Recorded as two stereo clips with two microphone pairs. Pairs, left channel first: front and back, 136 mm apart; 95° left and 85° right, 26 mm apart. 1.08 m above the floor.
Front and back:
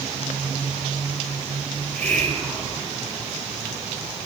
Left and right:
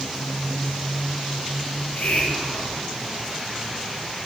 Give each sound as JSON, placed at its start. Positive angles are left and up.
{"t": 1.7, "sound": "a hiss", "azimuth_deg": 85, "distance_m": 5.5}